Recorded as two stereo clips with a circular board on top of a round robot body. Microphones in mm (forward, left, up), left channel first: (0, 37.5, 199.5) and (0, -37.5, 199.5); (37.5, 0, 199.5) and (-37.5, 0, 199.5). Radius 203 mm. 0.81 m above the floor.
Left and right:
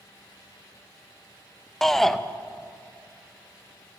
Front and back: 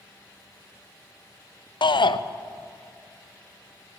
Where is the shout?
5° left, 0.7 m.